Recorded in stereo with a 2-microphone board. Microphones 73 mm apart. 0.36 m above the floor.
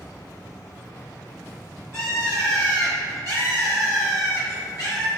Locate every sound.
1.9 s a bird: 40° left (ahead or behind), 1.0 m